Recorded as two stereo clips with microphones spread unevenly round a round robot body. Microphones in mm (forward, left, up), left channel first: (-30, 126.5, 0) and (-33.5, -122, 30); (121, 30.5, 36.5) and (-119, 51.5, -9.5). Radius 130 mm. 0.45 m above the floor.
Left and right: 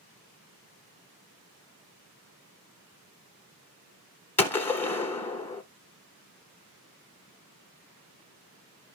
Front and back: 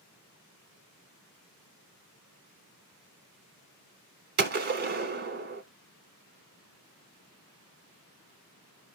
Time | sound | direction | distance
4.4 | a gunshot | 165° left | 0.9 m